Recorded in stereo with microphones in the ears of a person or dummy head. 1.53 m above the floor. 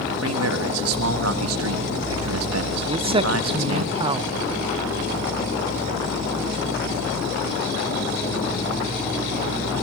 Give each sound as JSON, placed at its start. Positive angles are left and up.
{"t": 0.2, "sound": "a man speaking", "side_deg": -85, "distance_m": 3.0}
{"t": 2.9, "sound": "a man speaking", "side_deg": -35, "distance_m": 0.5}